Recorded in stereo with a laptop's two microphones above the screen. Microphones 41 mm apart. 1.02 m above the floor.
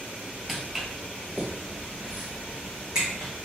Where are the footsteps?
5° right (ahead or behind), 1.0 m; by 3.3 s 20° right (ahead or behind), 3 m.